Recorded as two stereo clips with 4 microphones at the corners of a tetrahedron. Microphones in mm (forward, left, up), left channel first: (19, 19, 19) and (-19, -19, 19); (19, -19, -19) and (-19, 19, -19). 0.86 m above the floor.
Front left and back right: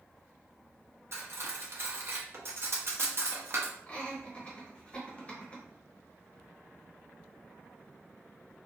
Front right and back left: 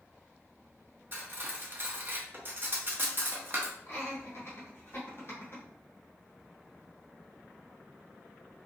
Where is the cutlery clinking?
175° right, 0.6 m.